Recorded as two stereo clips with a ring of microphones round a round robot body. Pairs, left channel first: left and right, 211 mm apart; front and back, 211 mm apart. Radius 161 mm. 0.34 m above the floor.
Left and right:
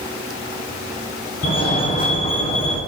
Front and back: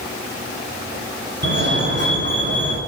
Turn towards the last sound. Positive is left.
turn(degrees=145)